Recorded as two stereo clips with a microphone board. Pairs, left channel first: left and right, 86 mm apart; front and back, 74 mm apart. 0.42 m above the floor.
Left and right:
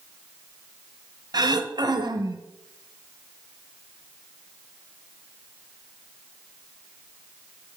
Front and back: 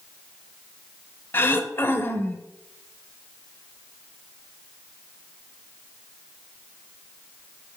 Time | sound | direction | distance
1.3 | throat clearing | 55° right | 0.7 m